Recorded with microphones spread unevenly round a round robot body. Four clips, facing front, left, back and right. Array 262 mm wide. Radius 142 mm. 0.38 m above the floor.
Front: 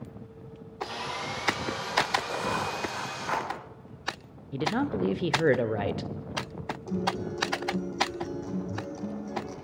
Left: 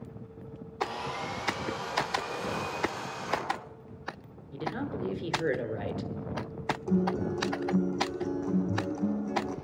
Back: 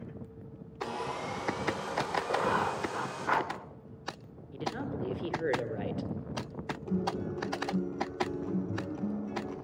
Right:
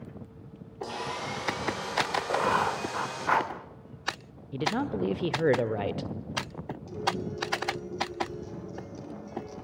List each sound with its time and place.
0.8 s sawing: 155° right, 6 m
2.3 s writing: 135° right, 1.8 m
4.5 s a man speaking: 40° right, 1.4 m
6.9 s a guitar: 105° left, 3 m